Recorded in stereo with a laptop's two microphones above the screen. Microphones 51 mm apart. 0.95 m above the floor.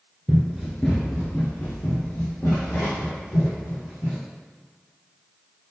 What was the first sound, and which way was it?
Running footsteps, 20° right (ahead or behind).